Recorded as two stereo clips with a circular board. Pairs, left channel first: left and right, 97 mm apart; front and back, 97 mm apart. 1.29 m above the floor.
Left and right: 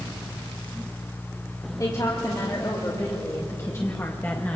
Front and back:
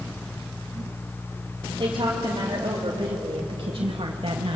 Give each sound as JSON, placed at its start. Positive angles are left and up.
{"t": 1.8, "sound": "a woman speaking", "azimuth_deg": 135, "distance_m": 3.5}